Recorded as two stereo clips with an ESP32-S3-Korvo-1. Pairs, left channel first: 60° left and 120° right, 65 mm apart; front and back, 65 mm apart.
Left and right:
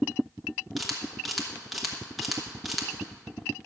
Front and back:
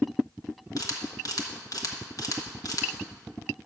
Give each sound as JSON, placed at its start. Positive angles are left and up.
{"t": 0.8, "sound": "a camera shutter", "azimuth_deg": -30, "distance_m": 1.4}